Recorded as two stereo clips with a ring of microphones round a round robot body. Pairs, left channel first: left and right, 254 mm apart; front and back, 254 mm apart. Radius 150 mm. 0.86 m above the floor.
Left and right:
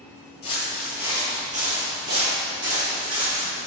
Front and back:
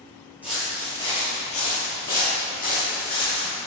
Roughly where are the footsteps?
Left.